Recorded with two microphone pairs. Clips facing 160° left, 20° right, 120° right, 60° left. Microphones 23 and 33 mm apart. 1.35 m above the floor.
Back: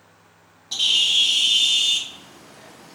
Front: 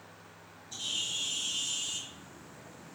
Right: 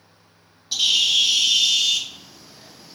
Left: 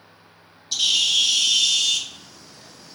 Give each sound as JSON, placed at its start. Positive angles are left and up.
{"t": 0.7, "sound": "a bird", "azimuth_deg": 160, "distance_m": 0.7}